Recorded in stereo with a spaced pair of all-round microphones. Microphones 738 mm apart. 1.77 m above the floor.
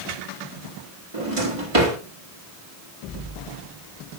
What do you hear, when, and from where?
1.1 s a drawer: 45° right (ahead or behind), 1.8 m